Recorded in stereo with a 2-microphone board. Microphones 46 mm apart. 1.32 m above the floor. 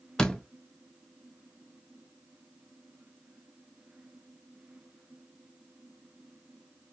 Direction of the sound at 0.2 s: 15° left (ahead or behind).